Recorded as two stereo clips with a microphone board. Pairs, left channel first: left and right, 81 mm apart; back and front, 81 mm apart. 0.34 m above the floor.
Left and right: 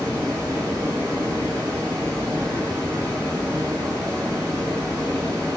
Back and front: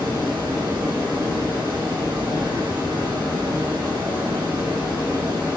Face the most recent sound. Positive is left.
turn(degrees=-35)